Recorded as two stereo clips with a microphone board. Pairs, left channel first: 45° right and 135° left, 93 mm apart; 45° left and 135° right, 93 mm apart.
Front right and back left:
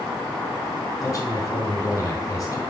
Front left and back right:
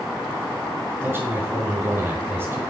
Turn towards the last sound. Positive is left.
turn(degrees=-90)